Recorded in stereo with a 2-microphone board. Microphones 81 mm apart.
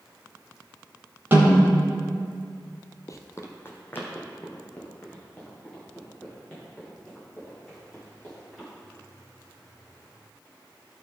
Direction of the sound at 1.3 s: 30° right (ahead or behind).